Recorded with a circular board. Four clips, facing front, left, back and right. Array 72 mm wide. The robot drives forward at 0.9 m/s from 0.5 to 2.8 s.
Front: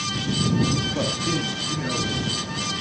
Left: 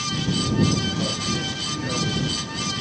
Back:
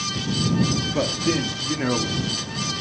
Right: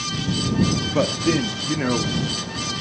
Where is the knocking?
No knocking in this recording.